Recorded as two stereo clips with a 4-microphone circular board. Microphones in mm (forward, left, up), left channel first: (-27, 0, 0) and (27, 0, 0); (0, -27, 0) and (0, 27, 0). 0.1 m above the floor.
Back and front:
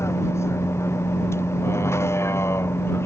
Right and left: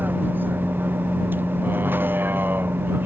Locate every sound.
0.0 s a vehicle: 145° left; by 3.1 s 140° left